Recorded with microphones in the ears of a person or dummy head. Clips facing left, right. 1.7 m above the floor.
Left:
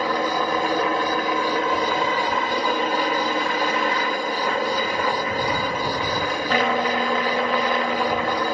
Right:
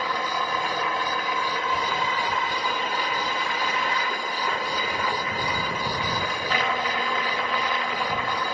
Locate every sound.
0.0 s a helicopter: 45° left (ahead or behind)